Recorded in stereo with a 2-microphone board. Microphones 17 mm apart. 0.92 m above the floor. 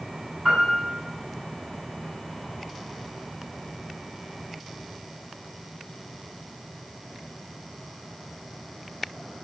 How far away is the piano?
About 7.5 m.